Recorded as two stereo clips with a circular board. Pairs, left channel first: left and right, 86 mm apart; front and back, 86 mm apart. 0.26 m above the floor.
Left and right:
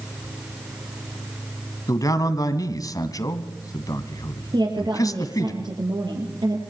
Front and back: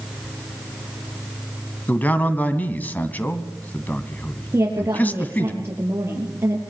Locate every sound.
1.9 s a man speaking: 65° left, 2 m
4.5 s a woman speaking: 120° right, 5 m